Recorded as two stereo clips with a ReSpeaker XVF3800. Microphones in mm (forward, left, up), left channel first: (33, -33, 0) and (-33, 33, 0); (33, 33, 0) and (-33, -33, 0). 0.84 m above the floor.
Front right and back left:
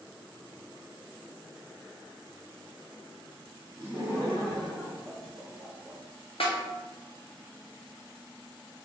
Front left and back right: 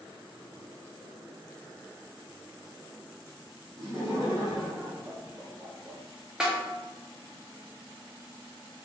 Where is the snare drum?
55° right, 0.6 m.